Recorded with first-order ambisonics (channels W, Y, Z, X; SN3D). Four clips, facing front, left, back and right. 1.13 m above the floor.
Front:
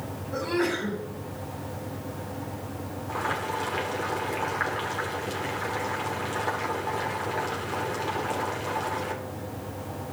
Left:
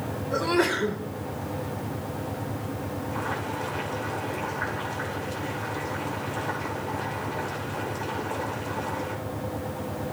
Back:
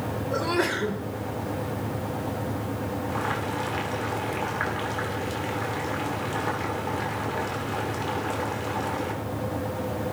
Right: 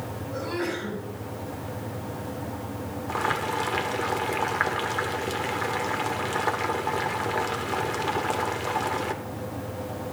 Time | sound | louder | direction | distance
0.3 | a sneeze | left 6 dB, back 1 dB | 130° left | 2.5 m
3.1 | boiling | right 6 dB, front 2 dB | 90° right | 1.5 m